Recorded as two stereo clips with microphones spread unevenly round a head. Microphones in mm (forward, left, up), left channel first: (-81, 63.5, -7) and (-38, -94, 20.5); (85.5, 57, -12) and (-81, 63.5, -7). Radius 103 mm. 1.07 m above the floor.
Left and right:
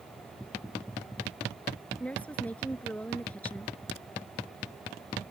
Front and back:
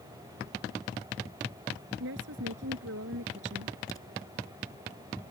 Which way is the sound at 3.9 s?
75° right.